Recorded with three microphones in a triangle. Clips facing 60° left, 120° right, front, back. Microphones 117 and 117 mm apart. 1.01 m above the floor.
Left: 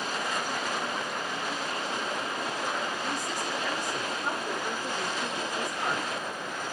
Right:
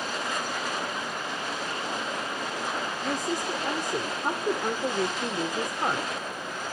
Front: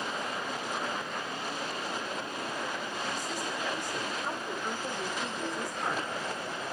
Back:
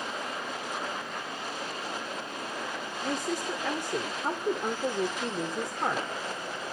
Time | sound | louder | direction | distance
3.0 | a woman speaking | right 3 dB, back 8 dB | 155° right | 2.5 m